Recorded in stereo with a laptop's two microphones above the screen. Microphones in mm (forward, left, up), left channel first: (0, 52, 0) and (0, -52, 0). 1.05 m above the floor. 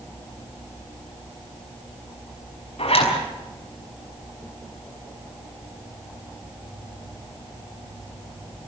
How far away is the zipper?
About 6 m.